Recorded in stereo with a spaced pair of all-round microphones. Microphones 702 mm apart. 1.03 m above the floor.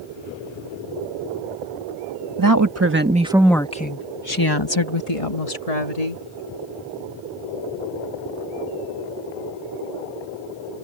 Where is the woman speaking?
30° right (ahead or behind); by 6.2 s 65° left (ahead or behind).